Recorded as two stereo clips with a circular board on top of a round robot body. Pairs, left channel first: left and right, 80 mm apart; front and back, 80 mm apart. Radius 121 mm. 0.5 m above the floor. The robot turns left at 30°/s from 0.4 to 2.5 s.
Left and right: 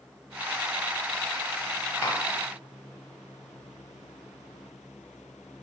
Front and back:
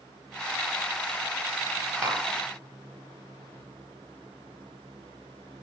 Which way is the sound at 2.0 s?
135° left.